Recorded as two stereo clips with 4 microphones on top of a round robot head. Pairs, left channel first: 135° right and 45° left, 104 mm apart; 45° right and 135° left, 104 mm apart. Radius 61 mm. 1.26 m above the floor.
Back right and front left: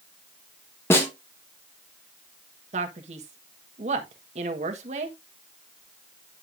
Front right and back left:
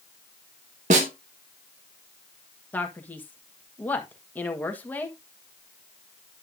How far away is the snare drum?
About 1.6 m.